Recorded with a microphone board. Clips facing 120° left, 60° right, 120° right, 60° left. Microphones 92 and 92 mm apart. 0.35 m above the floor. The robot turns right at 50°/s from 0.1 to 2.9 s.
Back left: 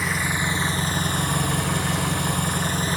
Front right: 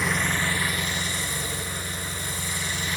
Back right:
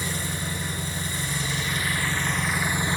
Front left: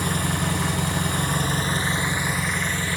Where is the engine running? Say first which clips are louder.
Back left 1 dB, front left 6 dB; 30° left, 1.6 m; by 3.0 s 170° left, 1.6 m.